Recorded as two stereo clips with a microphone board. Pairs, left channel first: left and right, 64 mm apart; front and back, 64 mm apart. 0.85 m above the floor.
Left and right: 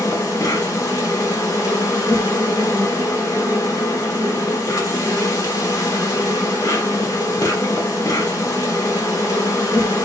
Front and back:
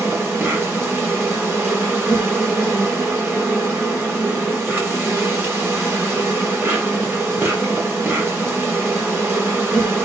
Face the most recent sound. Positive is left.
turn(degrees=125)